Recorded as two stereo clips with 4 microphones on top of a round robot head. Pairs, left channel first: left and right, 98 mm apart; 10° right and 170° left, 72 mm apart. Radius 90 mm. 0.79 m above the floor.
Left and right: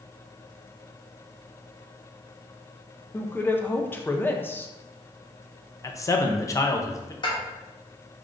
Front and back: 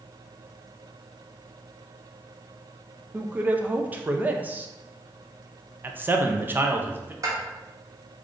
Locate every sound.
3.1 s a woman speaking: 135° left, 0.6 m
5.8 s a man speaking: 125° left, 0.6 m
7.2 s dishes clattering: 130° left, 1.0 m